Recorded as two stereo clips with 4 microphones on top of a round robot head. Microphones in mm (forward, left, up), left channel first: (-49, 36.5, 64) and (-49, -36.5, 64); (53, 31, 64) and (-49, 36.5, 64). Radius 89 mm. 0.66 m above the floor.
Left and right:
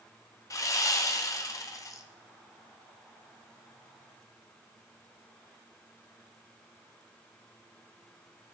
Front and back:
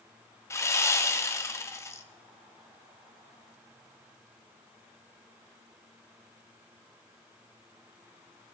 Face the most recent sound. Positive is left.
turn(degrees=55)